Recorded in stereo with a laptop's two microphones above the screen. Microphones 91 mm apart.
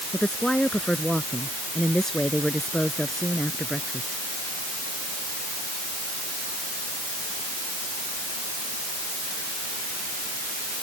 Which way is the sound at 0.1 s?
10° left (ahead or behind).